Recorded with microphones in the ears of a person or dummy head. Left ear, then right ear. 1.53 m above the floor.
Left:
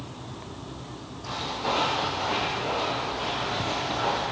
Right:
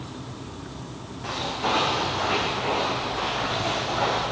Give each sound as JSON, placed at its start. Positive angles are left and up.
{"t": 1.2, "sound": "footsteps", "side_deg": -70, "distance_m": 5.0}